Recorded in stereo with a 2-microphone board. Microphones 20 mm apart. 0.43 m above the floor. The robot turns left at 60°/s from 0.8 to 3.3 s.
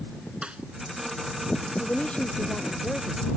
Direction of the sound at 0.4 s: 60° right (ahead or behind).